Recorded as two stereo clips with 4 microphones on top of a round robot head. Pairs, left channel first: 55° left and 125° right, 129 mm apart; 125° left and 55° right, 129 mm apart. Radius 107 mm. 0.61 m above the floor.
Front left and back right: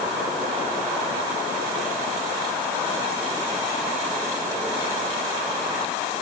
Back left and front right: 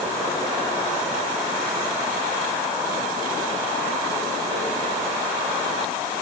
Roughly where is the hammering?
I don't hear hammering.